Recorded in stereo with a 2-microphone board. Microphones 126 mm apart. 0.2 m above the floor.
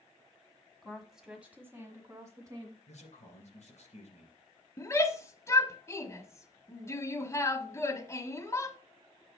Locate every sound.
0.8 s a woman speaking: 5° left (ahead or behind), 1.4 m; by 2.8 s 30° right (ahead or behind), 1.9 m
2.9 s a man speaking: 60° left (ahead or behind), 3.5 m
4.8 s a shout: 25° left (ahead or behind), 1.0 m